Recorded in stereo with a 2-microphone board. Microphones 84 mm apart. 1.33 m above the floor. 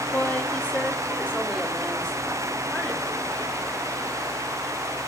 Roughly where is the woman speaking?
Left.